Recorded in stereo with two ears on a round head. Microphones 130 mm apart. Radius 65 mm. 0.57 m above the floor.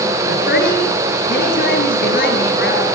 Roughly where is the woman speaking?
Left.